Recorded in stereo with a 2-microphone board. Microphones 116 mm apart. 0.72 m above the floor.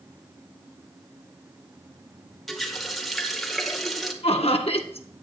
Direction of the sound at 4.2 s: 60° left (ahead or behind).